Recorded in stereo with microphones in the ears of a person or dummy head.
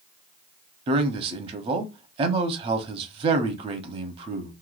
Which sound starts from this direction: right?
A man speaking, at 0.9 s.